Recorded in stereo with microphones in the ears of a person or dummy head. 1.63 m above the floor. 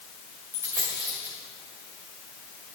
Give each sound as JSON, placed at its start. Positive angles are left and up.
{"t": 0.5, "sound": "a dropped coin", "side_deg": -10, "distance_m": 2.0}